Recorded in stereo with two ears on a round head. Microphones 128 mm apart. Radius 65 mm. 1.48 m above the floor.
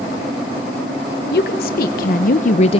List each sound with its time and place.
1.3 s a woman speaking: 75° left (ahead or behind), 1.3 m; by 2.8 s 40° left (ahead or behind), 0.5 m